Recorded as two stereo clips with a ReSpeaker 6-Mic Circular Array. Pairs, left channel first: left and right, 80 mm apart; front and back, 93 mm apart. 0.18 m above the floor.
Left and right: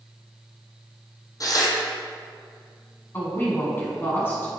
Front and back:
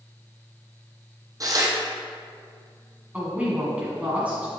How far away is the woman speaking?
About 1.8 m.